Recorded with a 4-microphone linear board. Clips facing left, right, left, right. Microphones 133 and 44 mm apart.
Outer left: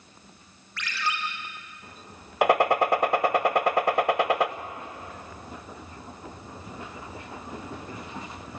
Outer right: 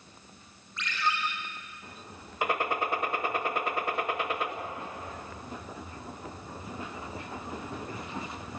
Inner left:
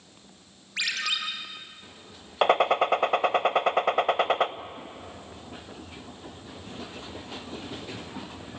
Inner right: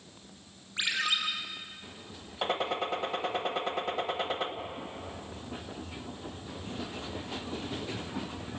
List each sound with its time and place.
0.8 s a ringtone: 90° left, 5.5 m
2.4 s a gunshot: 80° left, 0.9 m